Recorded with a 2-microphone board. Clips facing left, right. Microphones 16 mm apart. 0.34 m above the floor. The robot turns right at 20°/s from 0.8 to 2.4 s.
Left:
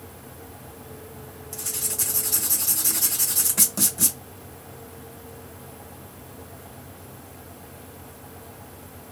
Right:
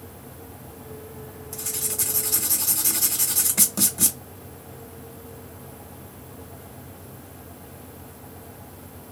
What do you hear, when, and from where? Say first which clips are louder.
1.5 s writing: even; 10° left (ahead or behind), 1.4 m; by 4.2 s 5° right (ahead or behind), 1.4 m